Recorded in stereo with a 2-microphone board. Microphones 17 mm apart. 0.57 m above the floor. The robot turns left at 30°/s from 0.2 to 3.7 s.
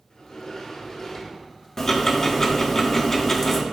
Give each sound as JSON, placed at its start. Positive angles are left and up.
{"t": 0.1, "sound": "a sliding door", "azimuth_deg": 60, "distance_m": 1.5}
{"t": 1.8, "sound": "ticking", "side_deg": 30, "distance_m": 1.1}